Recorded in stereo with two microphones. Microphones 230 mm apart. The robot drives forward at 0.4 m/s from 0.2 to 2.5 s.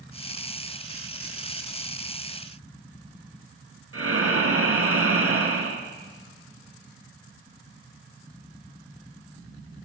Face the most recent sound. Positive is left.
turn(degrees=-75)  # may be behind; listen again after turning